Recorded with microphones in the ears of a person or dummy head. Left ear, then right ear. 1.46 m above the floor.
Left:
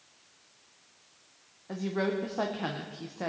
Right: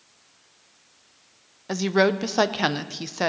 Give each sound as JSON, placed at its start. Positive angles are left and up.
{"t": 1.7, "sound": "a woman speaking", "side_deg": -80, "distance_m": 0.7}